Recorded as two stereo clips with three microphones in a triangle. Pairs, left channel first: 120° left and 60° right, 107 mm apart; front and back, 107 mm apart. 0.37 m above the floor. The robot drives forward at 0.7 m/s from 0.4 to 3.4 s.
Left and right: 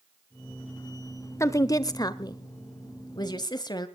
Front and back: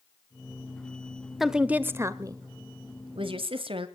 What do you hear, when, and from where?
1.4 s a woman speaking: 90° left, 0.9 m; by 3.9 s 160° left, 1.7 m